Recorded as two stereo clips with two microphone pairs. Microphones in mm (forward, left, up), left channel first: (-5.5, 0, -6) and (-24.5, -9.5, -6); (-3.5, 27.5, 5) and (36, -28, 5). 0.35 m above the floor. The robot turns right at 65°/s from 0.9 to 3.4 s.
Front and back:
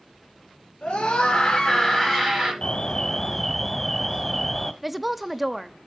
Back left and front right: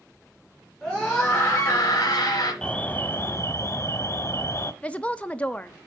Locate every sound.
0.8 s a scream: 45° left, 6 m; by 2.5 s 150° left, 6 m
2.6 s an alarm: 55° left, 1.2 m; by 4.7 s 105° left, 1.2 m
4.8 s a woman speaking: 145° left, 0.8 m